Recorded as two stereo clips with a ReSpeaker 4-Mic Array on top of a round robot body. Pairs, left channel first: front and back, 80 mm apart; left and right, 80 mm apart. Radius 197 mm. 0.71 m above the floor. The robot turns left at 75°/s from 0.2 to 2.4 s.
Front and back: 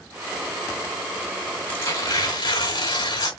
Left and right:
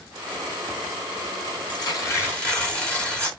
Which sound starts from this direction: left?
Tearing paper, at 1.7 s.